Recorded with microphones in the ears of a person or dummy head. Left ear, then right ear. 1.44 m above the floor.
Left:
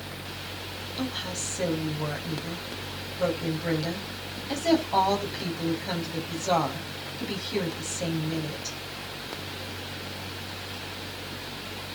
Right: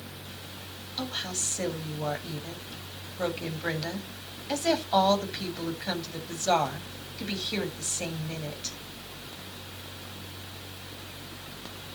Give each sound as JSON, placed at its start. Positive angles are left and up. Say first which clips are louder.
{"t": 1.0, "sound": "a woman speaking", "louder": "right 1 dB", "side_deg": -40, "distance_m": 7.5}